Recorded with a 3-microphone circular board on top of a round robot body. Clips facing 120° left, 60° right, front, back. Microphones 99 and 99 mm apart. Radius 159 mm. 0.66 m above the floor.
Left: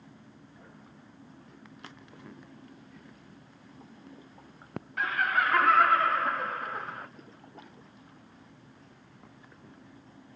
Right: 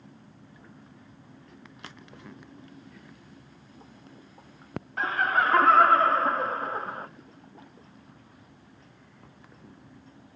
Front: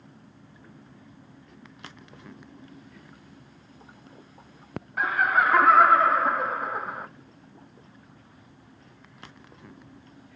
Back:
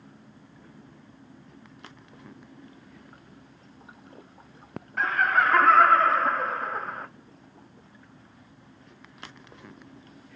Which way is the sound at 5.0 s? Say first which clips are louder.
Right 3 dB, even; 75° right.